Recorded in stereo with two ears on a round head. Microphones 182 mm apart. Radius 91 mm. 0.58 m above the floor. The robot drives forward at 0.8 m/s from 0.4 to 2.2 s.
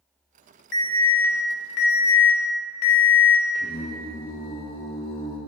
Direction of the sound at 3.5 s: 25° left (ahead or behind).